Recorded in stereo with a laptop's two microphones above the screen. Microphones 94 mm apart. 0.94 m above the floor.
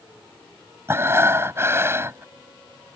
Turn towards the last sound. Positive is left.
turn(degrees=-30)  # may be behind; listen again after turning